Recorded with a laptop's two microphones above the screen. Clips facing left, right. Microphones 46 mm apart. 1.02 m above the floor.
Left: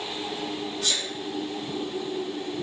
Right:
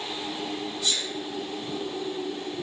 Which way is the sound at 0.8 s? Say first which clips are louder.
Even; 65° left (ahead or behind).